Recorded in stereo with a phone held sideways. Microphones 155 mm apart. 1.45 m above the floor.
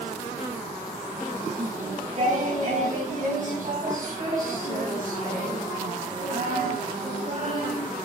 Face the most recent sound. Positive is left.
turn(degrees=-60)  # may be behind; listen again after turning